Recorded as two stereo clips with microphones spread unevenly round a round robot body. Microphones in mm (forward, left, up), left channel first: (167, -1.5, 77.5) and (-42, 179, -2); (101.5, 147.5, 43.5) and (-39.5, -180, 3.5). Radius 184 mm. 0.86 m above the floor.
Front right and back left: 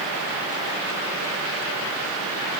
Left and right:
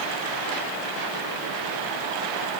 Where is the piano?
No piano in this recording.